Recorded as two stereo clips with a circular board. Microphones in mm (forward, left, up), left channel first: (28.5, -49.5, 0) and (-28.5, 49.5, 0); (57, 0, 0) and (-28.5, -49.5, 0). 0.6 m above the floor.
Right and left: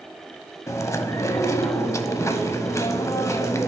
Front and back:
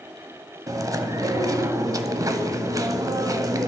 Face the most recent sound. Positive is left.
turn(degrees=-110)